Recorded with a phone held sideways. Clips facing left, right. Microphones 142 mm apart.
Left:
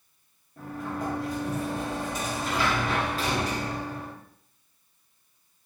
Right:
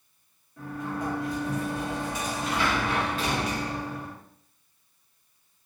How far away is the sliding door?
About 1.3 m.